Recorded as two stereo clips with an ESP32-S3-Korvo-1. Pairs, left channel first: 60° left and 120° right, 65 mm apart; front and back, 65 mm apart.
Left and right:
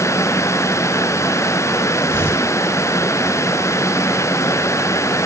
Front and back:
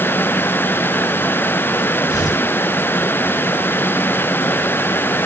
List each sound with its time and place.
2.1 s tearing paper: 10° left, 6.5 m